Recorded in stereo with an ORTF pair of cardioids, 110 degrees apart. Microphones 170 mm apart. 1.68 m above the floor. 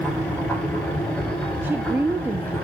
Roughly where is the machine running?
Ahead.